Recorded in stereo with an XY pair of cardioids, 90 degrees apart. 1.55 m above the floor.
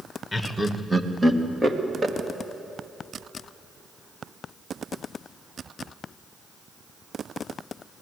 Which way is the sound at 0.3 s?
20° left.